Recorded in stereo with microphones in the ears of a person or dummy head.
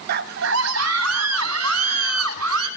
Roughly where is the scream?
Right.